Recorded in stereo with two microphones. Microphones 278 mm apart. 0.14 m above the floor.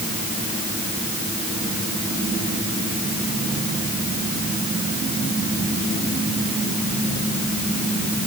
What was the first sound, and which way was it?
Only background noise.